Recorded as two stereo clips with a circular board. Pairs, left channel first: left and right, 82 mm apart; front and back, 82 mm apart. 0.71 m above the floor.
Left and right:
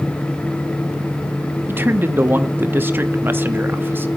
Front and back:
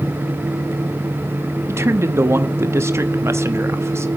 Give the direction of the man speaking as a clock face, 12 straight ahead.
5 o'clock.